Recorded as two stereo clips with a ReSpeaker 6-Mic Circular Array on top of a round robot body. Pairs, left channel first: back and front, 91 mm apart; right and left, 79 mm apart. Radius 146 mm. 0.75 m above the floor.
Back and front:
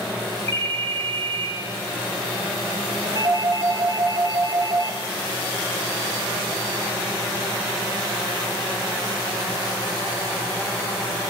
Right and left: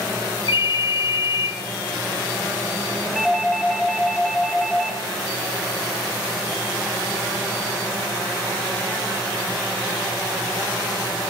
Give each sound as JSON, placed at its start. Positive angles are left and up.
{"t": 0.5, "sound": "a ringtone", "azimuth_deg": -115, "distance_m": 0.6}
{"t": 3.1, "sound": "a doorbell", "azimuth_deg": 0, "distance_m": 1.5}